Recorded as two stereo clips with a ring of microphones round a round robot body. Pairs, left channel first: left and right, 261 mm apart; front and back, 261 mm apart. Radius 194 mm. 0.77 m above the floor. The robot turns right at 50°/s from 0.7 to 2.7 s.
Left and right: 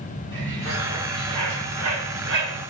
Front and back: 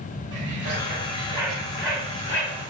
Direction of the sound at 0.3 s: 135° right.